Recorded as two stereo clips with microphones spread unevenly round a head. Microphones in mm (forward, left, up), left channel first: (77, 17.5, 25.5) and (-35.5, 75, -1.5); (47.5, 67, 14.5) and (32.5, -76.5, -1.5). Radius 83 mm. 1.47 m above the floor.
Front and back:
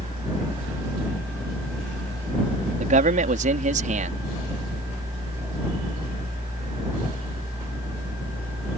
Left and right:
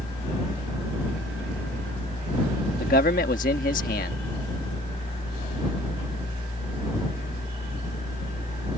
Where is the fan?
90° left.